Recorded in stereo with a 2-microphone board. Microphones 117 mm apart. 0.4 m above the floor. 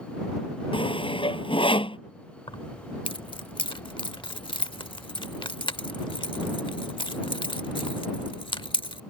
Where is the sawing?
45° left (ahead or behind).